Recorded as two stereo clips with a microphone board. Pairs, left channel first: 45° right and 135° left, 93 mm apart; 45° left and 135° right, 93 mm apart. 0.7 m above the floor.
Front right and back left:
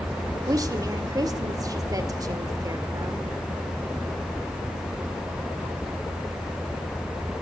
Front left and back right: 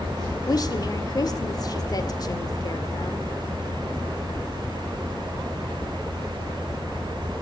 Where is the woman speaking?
90° left, 1.6 m.